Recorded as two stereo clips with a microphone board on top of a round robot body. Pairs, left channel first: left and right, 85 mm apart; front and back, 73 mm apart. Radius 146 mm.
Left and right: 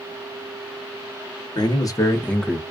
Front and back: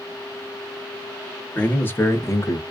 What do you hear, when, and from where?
1.6 s a man speaking: 65° left, 1.1 m; by 2.6 s 15° right, 0.7 m